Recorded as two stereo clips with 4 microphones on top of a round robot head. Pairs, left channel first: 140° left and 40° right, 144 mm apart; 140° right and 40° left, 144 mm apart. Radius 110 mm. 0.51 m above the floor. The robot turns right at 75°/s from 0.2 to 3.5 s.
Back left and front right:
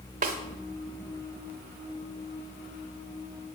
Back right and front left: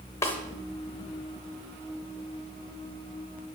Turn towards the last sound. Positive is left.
turn(degrees=180)